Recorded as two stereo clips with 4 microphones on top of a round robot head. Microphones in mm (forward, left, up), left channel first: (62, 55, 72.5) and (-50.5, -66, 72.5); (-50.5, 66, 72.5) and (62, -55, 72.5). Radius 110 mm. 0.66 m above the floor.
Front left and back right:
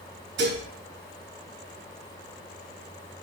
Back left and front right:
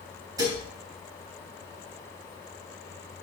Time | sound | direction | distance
0.4 | dishes clattering | 115° right | 3 m